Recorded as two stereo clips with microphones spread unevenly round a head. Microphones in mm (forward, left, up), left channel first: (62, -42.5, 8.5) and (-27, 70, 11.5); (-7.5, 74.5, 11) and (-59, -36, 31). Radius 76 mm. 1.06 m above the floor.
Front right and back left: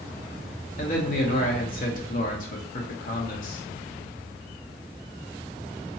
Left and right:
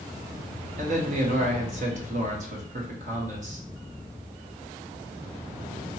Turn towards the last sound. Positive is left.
turn(degrees=-80)